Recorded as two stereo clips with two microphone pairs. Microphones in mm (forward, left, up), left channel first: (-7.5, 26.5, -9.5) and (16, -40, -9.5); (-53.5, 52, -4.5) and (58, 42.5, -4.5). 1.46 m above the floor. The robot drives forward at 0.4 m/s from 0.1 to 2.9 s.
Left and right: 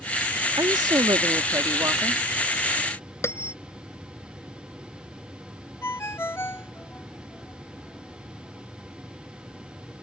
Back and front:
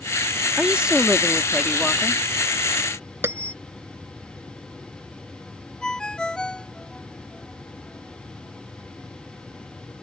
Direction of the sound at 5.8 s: 95° left.